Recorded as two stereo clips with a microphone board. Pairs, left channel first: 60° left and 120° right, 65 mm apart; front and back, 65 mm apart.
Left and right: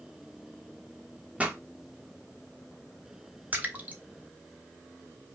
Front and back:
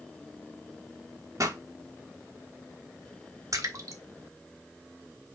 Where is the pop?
175° left, 1.1 m.